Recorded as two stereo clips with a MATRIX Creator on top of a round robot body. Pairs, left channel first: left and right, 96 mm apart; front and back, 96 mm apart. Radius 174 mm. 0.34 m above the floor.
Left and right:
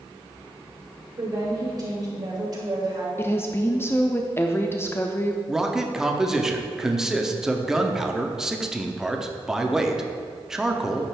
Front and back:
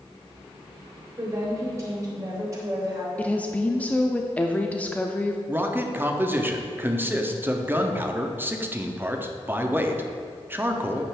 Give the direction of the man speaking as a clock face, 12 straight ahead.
6 o'clock.